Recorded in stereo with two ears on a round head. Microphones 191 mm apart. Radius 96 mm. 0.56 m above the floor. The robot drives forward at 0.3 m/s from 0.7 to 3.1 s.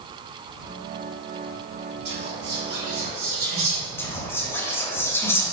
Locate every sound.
2.0 s whispering: 55° right (ahead or behind), 1.9 m; by 3.9 s 50° right (ahead or behind), 2 m
4.0 s whispering: 10° left (ahead or behind), 0.7 m